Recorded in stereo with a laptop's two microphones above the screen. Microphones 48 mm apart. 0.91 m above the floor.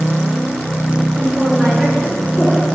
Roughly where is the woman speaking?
Right.